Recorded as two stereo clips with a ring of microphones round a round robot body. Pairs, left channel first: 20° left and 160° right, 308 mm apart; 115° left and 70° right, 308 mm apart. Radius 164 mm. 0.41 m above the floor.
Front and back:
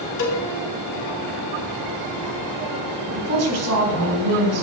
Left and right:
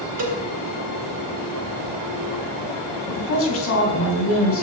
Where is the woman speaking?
160° left, 3.5 m.